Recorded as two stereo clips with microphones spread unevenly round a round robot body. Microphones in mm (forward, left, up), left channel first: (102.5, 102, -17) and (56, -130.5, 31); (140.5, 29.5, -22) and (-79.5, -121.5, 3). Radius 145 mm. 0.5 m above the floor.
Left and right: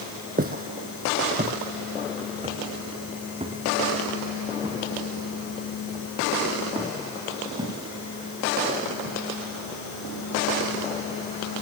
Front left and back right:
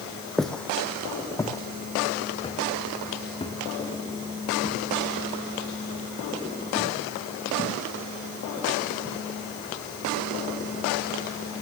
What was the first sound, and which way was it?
Footsteps, 55° right.